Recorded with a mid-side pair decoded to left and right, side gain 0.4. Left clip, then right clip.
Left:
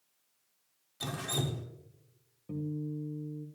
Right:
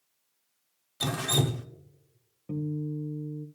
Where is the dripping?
60° right, 0.8 m.